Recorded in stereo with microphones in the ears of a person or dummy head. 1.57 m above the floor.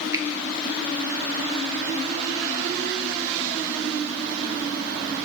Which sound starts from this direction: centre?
A finger snap, at 0.1 s.